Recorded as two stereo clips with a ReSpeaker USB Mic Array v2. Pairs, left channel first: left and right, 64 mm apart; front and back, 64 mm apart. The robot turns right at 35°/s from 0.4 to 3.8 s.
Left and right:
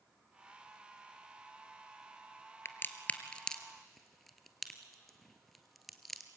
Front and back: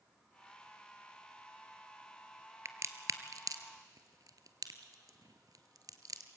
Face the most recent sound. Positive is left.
turn(degrees=180)